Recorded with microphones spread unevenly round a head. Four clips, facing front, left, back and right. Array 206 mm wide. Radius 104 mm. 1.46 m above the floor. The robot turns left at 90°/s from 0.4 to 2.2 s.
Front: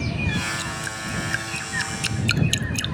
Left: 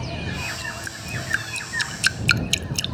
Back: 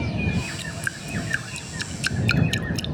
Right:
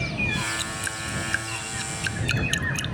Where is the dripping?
140° right; by 3.0 s 75° left.